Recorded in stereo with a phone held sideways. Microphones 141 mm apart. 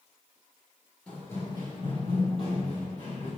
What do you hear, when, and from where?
1.1 s running footsteps: 10° left (ahead or behind), 1.5 m; by 3.3 s 65° left (ahead or behind), 3.5 m